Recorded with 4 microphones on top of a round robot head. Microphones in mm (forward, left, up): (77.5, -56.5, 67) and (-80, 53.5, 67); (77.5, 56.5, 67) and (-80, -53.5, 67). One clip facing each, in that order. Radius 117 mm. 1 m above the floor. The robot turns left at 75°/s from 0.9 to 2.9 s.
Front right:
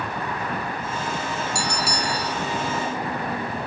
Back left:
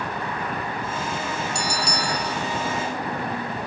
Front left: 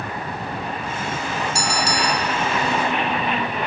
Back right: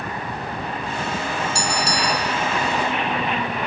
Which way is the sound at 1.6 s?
75° left.